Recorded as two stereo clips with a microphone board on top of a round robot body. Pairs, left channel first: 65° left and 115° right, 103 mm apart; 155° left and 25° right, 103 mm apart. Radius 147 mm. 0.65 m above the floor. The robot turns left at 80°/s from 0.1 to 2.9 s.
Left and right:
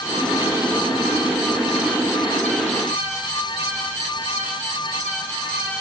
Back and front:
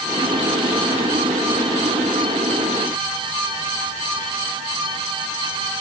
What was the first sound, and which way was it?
Only background noise.